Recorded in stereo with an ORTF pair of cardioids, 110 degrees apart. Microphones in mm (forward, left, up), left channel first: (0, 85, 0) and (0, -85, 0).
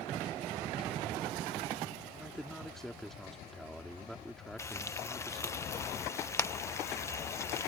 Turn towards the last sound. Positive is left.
turn(degrees=15)